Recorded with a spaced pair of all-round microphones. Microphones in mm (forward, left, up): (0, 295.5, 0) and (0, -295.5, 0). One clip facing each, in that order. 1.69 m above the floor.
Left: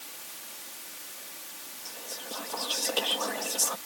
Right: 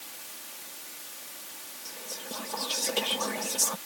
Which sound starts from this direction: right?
Whispering, at 1.9 s.